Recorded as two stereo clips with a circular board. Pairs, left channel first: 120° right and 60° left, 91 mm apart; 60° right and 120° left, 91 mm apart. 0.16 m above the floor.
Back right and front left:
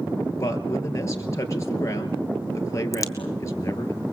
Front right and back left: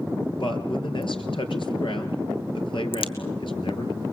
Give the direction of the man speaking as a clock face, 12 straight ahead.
2 o'clock.